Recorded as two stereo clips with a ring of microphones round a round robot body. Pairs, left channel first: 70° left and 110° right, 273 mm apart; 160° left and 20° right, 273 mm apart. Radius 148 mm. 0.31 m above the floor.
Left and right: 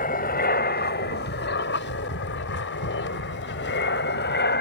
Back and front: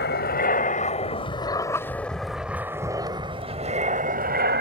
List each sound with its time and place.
0.0 s an aircraft: 115° left; by 4.6 s 25° left